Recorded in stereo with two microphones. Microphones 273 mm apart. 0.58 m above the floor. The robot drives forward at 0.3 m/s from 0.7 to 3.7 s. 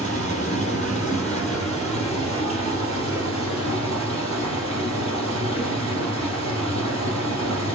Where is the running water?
25° left (ahead or behind), 4 m; by 7.8 s 20° left (ahead or behind), 4.5 m.